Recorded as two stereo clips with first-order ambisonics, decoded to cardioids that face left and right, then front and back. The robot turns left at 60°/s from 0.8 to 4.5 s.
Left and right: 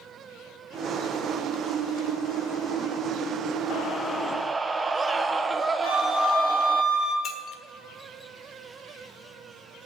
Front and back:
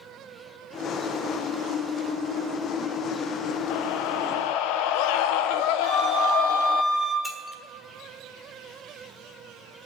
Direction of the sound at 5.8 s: 105° left.